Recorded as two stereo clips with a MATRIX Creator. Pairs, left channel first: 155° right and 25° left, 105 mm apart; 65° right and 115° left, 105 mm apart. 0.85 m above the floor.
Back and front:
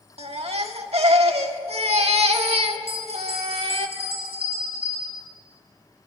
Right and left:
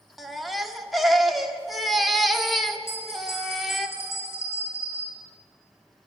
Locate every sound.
0.2 s a baby crying: 20° left, 1.6 m
2.9 s a bell: 5° right, 7 m